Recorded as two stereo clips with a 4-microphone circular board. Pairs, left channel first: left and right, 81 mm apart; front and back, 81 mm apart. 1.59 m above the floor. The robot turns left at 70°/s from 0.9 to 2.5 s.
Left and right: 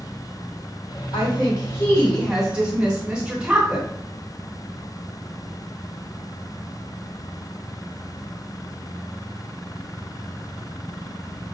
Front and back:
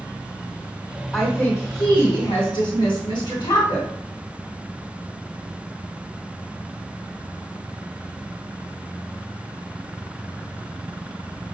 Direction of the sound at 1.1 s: 85° left.